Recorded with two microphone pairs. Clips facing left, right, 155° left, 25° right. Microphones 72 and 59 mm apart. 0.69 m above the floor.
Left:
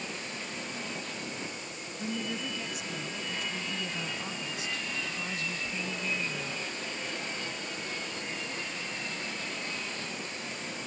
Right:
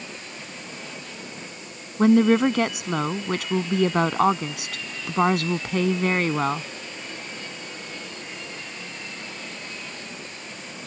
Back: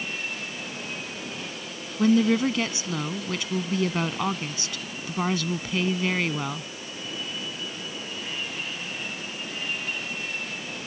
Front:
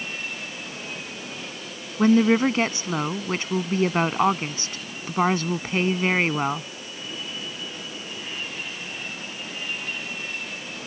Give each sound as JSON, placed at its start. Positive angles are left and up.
{"t": 2.0, "sound": "a woman speaking", "azimuth_deg": -75}